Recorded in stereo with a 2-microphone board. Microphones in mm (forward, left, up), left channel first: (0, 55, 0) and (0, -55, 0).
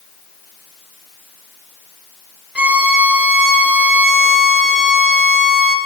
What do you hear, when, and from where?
2.5 s a violin: 10° right (ahead or behind), 0.7 m